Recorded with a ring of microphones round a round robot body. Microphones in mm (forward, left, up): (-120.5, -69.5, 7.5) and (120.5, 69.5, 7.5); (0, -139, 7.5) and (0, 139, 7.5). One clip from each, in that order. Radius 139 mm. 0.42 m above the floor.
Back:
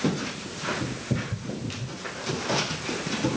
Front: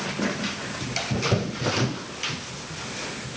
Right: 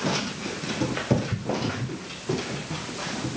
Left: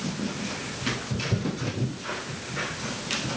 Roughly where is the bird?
No bird in this recording.